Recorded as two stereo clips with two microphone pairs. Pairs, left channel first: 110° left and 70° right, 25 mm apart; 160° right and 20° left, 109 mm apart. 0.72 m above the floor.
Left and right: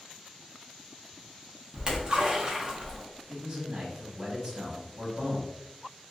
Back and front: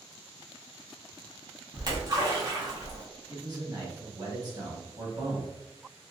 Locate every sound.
1.7 s a splash: 20° right, 0.8 m
3.3 s a man speaking: 30° right, 1.2 m